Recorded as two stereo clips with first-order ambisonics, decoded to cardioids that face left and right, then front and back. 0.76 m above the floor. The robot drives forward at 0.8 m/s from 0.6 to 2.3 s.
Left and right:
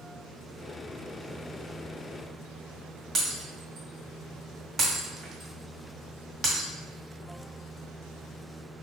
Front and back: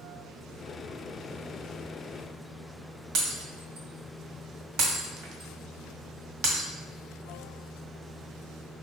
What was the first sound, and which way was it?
Breaking glass, 160° right.